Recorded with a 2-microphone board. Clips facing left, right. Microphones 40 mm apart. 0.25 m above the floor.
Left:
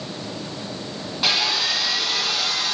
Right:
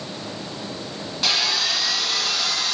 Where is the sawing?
10° left (ahead or behind), 2.5 m.